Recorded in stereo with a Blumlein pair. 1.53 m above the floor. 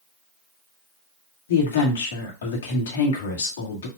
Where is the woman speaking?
65° left, 2.0 m.